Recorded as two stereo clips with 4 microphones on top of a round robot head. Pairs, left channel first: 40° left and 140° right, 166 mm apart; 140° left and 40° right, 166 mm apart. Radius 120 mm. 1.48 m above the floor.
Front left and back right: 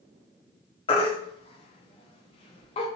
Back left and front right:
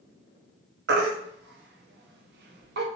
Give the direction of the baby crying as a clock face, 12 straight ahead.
1 o'clock.